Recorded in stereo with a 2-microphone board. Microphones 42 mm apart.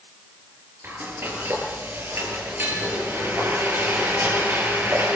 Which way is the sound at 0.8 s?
65° right (ahead or behind).